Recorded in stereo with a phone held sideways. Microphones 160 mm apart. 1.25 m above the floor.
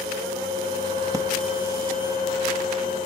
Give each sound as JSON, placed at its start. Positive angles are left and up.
{"t": 0.0, "sound": "a fan", "side_deg": -30, "distance_m": 8.0}
{"t": 1.1, "sound": "breathing", "side_deg": -25, "distance_m": 0.7}